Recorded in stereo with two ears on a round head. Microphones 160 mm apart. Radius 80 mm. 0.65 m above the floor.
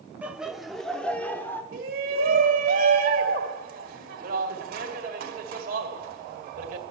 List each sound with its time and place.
0.2 s laughter: 10° right (ahead or behind), 1.1 m; by 1.6 s 10° left (ahead or behind), 1.7 m
1.7 s a shout: 50° right (ahead or behind), 2 m